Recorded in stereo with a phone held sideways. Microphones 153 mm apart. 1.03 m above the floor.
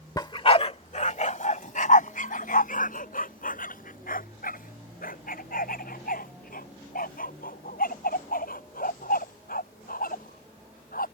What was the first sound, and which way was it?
A dog barking, 25° left (ahead or behind).